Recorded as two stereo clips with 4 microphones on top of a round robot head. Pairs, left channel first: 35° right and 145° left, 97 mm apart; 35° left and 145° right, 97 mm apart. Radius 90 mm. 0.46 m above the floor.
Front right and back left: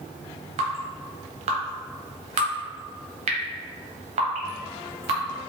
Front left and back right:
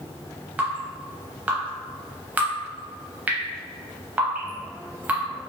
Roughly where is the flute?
No flute in this recording.